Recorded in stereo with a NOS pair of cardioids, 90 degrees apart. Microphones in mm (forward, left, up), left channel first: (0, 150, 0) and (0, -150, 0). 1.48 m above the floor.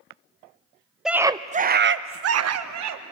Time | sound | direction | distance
1.1 | a scream | straight ahead | 0.8 m